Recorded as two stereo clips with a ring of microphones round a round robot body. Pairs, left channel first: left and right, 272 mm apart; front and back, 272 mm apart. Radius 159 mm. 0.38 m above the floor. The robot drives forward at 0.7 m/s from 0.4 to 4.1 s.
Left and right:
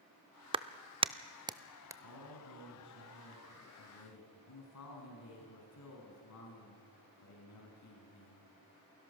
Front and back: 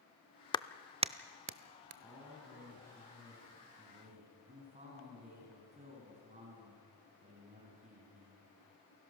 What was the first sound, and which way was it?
A clap, 50° right.